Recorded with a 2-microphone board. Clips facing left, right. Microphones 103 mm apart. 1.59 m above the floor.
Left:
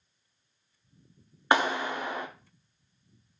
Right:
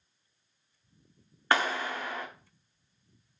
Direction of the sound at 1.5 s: 20° left (ahead or behind).